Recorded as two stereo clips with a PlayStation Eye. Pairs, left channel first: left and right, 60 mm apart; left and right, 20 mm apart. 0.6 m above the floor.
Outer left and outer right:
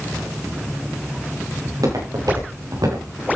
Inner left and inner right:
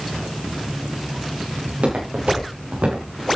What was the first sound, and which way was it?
Footsteps, 80° right.